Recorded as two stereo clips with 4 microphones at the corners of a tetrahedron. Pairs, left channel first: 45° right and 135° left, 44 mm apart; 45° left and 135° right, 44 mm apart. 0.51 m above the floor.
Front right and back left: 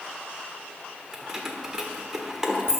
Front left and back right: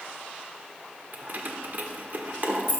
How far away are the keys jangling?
About 0.9 m.